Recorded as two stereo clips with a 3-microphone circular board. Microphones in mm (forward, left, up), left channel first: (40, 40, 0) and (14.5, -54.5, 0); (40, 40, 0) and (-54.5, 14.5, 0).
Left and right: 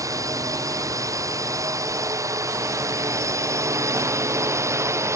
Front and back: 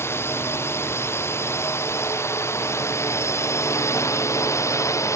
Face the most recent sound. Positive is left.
turn(degrees=-45)